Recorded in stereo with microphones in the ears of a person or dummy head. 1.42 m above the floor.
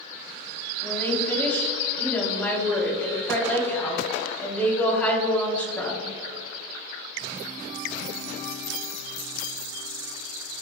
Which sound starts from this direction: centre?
A woman speaking, at 0.8 s.